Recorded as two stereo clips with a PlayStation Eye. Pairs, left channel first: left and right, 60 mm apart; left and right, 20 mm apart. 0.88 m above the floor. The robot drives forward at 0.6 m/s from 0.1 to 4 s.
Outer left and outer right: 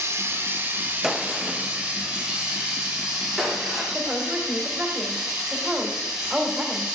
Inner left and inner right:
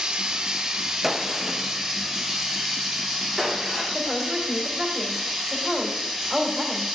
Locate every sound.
0.0 s running water: 45° right (ahead or behind), 0.9 m; by 7.0 s 10° right (ahead or behind), 3 m
1.0 s a gunshot: 5° right (ahead or behind), 0.6 m; by 3.8 s centre (ahead or behind), 2 m
3.9 s a woman speaking: 15° right (ahead or behind), 2.0 m